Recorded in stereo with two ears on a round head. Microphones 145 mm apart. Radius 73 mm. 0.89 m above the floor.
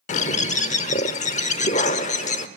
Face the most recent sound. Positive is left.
turn(degrees=45)  # may be behind; listen again after turning